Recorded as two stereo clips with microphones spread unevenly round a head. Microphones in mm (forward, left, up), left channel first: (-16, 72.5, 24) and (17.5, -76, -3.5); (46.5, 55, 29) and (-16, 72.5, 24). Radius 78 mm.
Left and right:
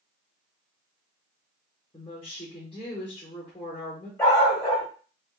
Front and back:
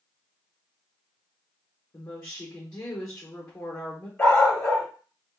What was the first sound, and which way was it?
A woman speaking, 45° left.